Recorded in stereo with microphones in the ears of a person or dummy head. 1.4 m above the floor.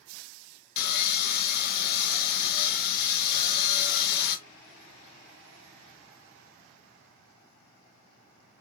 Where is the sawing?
55° left (ahead or behind), 0.9 m.